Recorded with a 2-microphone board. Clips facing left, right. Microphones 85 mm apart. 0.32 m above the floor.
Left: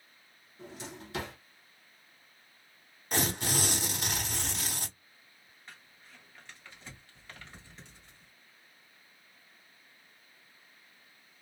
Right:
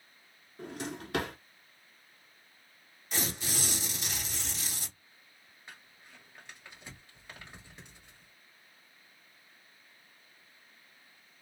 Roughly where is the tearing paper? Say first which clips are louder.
Left 5 dB; left.